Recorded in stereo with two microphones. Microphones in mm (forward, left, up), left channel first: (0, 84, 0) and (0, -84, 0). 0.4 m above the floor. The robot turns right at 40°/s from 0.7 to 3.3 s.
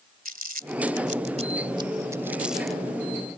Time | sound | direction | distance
0.2 | crumpling | 55° right (ahead or behind) | ?